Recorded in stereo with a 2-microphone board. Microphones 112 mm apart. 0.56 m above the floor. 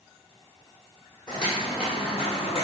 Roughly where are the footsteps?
Left.